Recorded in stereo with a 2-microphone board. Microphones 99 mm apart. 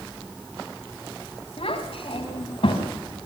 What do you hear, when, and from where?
1.6 s a child speaking: 75° left (ahead or behind), 6 m; by 2.9 s 65° left (ahead or behind), 6 m